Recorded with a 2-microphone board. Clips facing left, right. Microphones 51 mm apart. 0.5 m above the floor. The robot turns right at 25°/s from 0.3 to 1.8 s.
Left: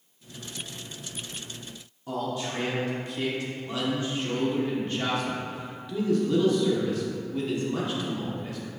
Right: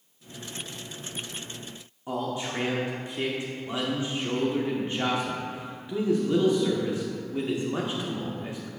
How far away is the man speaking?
About 0.7 m.